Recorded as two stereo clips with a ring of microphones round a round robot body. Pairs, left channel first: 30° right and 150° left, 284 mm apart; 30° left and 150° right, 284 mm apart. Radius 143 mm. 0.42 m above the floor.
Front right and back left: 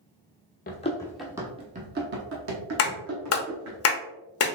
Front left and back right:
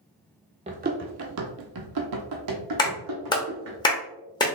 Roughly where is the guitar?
I don't hear a guitar.